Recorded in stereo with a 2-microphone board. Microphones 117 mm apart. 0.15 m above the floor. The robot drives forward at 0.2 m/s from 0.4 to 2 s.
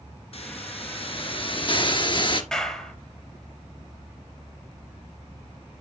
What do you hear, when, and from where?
0.3 s a hiss: 60° left (ahead or behind), 0.7 m; by 2.4 s 45° left (ahead or behind), 0.9 m
2.5 s a clap: 5° left (ahead or behind), 3 m